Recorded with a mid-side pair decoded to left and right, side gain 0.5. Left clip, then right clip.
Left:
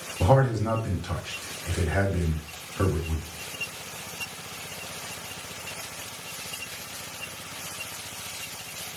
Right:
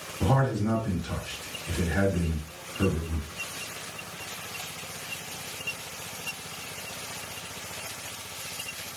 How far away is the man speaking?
About 1.8 m.